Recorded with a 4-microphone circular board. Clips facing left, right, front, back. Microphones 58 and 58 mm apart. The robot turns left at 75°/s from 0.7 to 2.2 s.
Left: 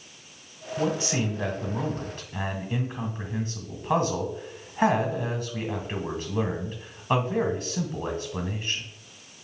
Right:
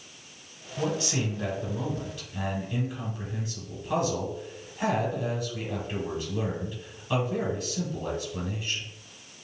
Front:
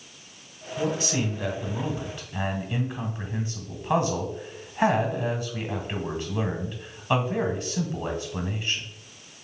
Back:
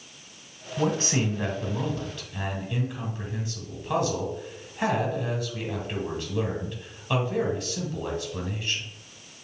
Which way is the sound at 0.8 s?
175° left.